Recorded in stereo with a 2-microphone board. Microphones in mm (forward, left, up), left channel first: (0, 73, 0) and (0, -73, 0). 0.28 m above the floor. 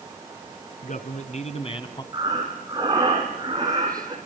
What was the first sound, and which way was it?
A man speaking, 60° left (ahead or behind).